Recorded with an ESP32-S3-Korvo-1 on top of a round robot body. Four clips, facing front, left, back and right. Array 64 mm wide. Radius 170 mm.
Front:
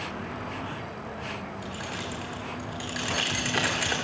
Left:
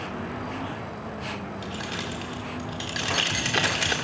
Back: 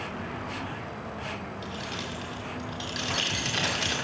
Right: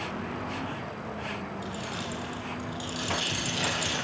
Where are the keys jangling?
60° left, 2.5 m.